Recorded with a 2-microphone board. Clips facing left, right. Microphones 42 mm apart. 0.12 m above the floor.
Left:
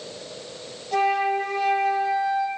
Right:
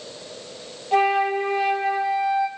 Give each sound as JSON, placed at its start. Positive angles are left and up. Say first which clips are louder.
{"t": 0.9, "sound": "a flute", "louder": "right 2 dB", "side_deg": -25, "distance_m": 2.0}